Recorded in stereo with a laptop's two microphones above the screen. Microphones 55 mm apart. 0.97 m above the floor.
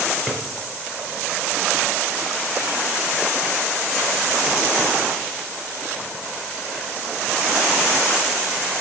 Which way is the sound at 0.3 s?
5° right (ahead or behind).